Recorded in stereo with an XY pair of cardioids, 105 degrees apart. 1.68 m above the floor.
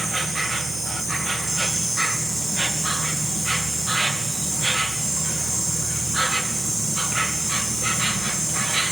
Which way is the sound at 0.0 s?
35° right.